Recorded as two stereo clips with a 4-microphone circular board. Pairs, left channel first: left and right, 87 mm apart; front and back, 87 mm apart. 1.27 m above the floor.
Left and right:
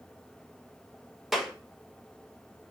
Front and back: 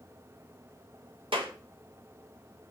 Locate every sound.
1.3 s a clap: 175° right, 1.5 m